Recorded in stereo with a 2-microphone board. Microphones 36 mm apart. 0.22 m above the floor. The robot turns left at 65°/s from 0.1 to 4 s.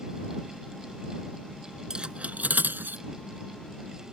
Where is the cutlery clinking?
20° right (ahead or behind); by 3.0 s 65° right (ahead or behind).